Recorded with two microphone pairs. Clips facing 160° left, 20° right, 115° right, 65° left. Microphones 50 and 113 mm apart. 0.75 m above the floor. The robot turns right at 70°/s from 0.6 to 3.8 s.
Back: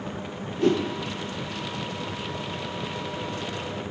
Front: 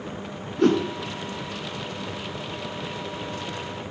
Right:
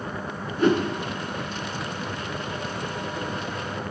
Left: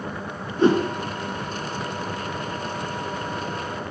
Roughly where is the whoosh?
Ahead.